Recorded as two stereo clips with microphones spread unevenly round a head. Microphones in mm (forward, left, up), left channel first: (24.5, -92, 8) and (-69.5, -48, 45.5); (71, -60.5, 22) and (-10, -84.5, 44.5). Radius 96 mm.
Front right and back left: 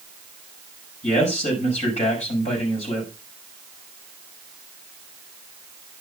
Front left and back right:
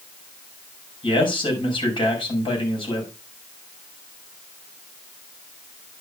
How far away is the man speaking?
About 6 m.